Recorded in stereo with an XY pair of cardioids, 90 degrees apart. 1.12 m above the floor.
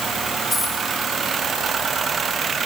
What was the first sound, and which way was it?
A dropped coin, 15° left.